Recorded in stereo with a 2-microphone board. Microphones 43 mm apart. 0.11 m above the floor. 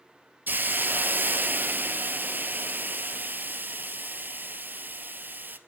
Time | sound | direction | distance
0.5 | a hiss | 50° right (ahead or behind) | 0.6 m